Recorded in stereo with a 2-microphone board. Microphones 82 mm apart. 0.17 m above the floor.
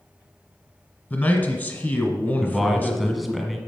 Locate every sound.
1.1 s a man speaking: 25° left (ahead or behind), 1.5 m
2.4 s a man speaking: centre (ahead or behind), 1.1 m